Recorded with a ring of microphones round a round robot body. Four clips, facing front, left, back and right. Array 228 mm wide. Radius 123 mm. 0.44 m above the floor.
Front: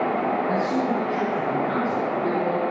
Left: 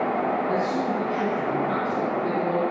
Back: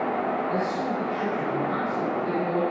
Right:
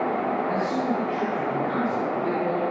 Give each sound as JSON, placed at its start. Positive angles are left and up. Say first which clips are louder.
{"t": 0.5, "sound": "a man speaking", "louder": "even, front 4 dB", "azimuth_deg": 5, "distance_m": 7.5}